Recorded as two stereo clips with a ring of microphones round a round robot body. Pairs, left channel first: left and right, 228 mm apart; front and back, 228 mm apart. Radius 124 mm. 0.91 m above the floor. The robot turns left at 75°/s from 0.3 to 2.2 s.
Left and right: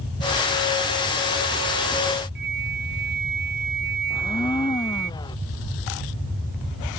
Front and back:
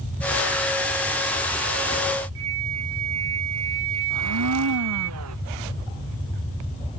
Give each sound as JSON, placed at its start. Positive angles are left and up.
{"t": 2.4, "sound": "a flute", "azimuth_deg": -145}
{"t": 4.1, "sound": "a blender", "azimuth_deg": 165}